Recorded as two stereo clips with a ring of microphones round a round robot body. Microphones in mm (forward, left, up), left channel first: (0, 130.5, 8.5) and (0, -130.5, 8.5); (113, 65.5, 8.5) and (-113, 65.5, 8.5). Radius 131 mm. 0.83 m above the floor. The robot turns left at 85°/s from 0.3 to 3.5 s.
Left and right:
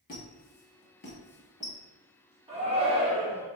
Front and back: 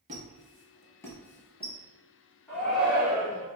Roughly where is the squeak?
Behind left.